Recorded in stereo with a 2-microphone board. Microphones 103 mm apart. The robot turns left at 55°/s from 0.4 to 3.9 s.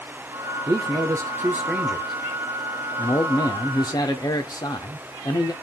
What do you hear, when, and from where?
0.7 s a man speaking: 100° right, 0.8 m; by 5.5 s 85° left, 0.8 m